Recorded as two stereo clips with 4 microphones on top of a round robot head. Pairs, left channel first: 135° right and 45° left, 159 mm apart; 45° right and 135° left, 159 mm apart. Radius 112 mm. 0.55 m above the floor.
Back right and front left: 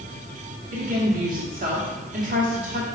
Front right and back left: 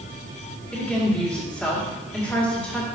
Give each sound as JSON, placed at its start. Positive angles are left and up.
{"t": 0.7, "sound": "a woman speaking", "azimuth_deg": 40, "distance_m": 1.9}